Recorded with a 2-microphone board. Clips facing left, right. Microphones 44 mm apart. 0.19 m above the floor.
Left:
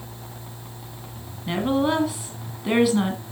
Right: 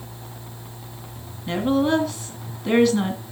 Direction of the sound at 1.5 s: 10° left (ahead or behind).